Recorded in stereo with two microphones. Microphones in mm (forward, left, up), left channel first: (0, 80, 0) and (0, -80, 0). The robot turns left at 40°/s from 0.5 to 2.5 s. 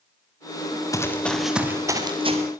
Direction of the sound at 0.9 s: 20° left (ahead or behind).